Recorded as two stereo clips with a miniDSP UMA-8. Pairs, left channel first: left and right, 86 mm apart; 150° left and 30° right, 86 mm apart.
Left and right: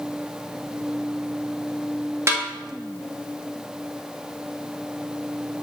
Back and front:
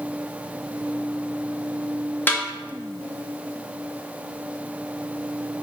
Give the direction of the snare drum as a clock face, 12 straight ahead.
5 o'clock.